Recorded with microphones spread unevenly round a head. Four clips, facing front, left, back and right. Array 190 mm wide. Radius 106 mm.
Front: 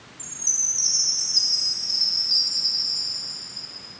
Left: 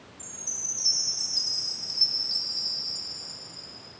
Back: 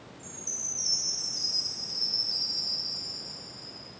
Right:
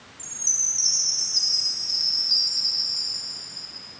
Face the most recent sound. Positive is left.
turn(degrees=50)